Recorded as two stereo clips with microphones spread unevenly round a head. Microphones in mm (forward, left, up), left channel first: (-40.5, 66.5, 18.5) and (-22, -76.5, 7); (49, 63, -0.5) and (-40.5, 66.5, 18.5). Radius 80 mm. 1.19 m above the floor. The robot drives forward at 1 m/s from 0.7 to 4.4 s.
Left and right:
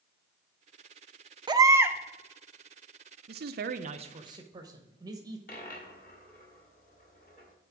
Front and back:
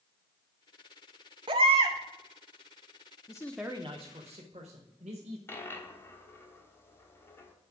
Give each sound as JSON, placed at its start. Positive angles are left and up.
{"t": 1.5, "sound": "a baby crying", "azimuth_deg": -145, "distance_m": 0.6}
{"t": 3.3, "sound": "a man speaking", "azimuth_deg": -60, "distance_m": 0.6}
{"t": 5.5, "sound": "a dropped coin", "azimuth_deg": 65, "distance_m": 1.3}